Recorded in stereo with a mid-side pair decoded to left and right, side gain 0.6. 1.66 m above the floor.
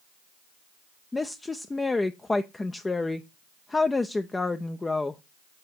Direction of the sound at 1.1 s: 15° left.